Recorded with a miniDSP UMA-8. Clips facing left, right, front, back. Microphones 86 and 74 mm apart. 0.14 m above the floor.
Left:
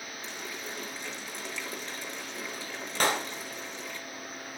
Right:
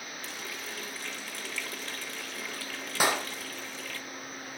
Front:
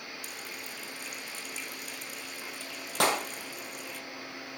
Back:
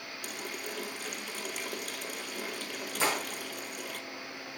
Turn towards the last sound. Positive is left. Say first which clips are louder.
# even, front 4 dB
turn(degrees=-10)